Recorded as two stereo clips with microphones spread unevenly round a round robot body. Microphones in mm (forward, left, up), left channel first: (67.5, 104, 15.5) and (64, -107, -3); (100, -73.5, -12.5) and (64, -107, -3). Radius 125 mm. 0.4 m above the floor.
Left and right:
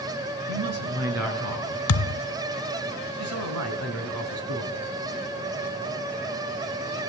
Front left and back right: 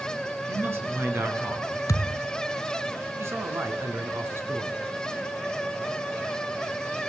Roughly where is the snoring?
I don't hear snoring.